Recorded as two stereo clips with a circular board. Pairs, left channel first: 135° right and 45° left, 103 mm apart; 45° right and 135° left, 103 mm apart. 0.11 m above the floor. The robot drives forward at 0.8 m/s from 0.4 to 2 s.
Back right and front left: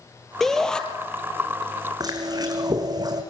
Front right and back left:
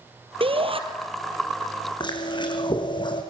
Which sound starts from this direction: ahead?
Chewing, at 2.0 s.